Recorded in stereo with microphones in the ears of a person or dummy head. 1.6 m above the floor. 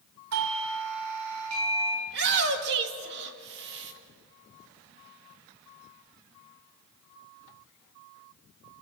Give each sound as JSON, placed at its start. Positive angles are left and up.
{"t": 0.3, "sound": "a doorbell", "side_deg": -75, "distance_m": 2.5}
{"t": 2.1, "sound": "a shout", "side_deg": -60, "distance_m": 2.0}